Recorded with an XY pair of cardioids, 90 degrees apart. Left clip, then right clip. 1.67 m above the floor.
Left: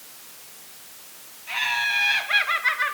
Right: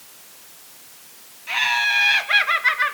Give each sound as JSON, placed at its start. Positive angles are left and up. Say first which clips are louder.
{"t": 1.5, "sound": "laughter", "louder": "right 4 dB", "azimuth_deg": -45, "distance_m": 3.5}